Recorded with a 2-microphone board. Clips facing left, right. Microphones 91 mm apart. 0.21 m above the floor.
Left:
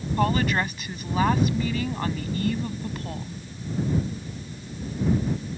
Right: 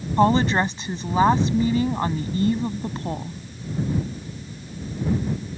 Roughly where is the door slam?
No door slam in this recording.